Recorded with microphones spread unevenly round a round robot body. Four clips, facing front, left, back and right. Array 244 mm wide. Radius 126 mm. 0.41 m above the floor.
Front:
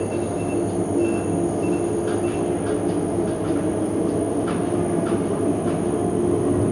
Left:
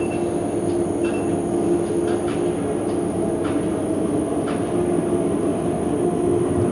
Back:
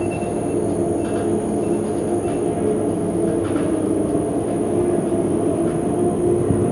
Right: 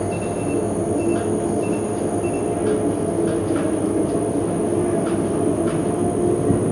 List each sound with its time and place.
0.0 s an insect: 160° right, 6 m